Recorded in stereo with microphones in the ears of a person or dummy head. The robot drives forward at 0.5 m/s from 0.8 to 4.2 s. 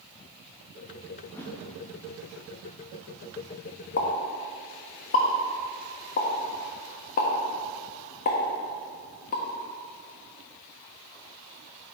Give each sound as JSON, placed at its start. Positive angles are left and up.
{"t": 1.2, "sound": "a whoosh", "side_deg": 10, "distance_m": 2.0}
{"t": 4.0, "sound": "a pop", "side_deg": 40, "distance_m": 1.3}